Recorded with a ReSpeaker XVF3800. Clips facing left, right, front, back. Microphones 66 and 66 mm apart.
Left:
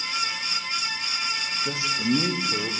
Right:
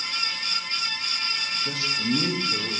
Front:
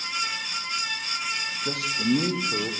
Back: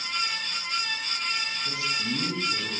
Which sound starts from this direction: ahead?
A man speaking, at 1.6 s.